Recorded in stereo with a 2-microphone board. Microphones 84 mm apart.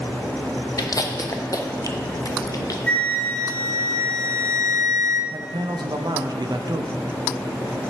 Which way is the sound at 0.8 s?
45° left (ahead or behind).